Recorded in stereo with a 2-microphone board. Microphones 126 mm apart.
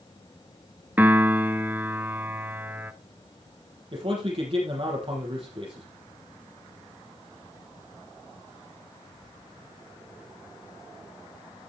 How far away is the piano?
About 0.5 m.